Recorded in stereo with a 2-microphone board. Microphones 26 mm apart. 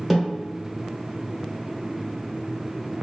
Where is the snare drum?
10° right (ahead or behind), 1.2 m.